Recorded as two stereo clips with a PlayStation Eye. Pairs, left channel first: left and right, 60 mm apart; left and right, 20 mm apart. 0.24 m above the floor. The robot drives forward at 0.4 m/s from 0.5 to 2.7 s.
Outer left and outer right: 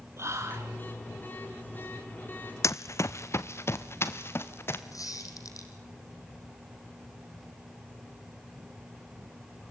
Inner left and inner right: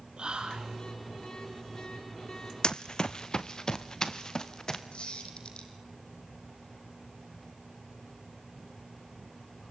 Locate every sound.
0.2 s whispering: 50° right (ahead or behind), 3 m
2.6 s running footsteps: 55° left (ahead or behind), 0.6 m; by 4.8 s 40° left (ahead or behind), 2.5 m
4.9 s a squeak: 70° left (ahead or behind), 4 m